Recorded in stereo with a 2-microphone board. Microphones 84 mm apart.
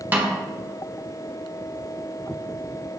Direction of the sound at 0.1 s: 20° right (ahead or behind).